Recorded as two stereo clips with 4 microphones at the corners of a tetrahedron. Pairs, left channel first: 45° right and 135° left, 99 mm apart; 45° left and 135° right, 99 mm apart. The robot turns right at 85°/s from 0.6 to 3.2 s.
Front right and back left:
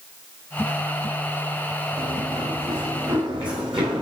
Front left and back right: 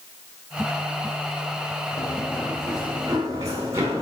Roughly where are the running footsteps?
Left.